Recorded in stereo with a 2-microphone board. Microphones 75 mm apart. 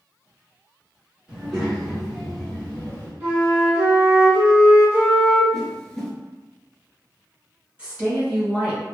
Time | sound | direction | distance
1.3 | a child speaking | 10° right (ahead or behind) | 1.7 m
3.2 | a flute | 25° right (ahead or behind) | 1.5 m
5.5 | a whoosh | 10° left (ahead or behind) | 0.5 m
7.8 | a woman speaking | 20° right (ahead or behind) | 1.7 m